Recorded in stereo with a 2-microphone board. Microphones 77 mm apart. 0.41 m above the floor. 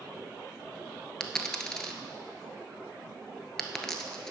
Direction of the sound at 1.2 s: 10° left (ahead or behind).